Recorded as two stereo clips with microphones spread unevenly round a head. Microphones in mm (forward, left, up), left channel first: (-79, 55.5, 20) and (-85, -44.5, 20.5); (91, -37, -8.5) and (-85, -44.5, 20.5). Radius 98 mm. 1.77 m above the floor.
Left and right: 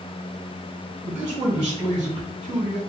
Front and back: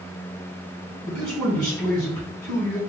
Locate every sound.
1.0 s a man speaking: 75° right, 2.5 m